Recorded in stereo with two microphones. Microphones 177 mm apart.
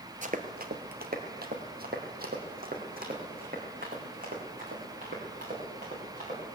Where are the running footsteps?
45° right (ahead or behind), 1.0 m.